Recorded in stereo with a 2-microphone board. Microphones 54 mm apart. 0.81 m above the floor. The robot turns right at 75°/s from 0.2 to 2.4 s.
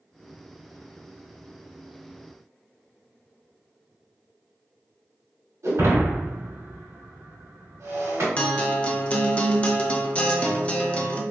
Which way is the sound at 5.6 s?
70° right (ahead or behind).